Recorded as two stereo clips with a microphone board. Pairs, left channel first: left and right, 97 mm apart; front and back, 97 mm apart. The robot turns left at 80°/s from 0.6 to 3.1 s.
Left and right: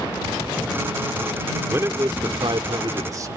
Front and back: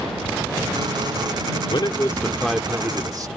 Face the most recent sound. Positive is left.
turn(degrees=-135)